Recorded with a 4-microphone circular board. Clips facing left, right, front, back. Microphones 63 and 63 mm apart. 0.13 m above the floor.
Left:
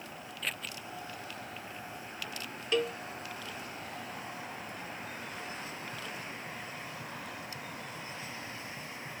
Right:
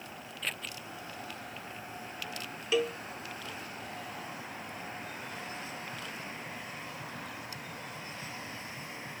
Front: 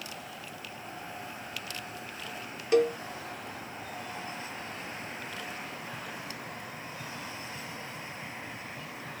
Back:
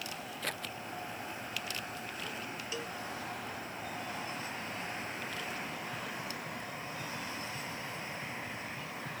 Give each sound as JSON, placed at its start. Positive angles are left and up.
{"t": 0.4, "sound": "scissors", "azimuth_deg": 180}
{"t": 2.7, "sound": "a cowbell", "azimuth_deg": -5}